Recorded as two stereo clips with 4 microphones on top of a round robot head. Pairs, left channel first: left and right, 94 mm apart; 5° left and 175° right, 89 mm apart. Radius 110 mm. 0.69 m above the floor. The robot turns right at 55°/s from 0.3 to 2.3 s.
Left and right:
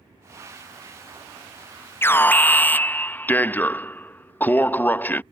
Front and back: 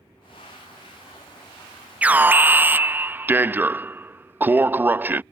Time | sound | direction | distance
2.0 | an alarm | 125° left | ?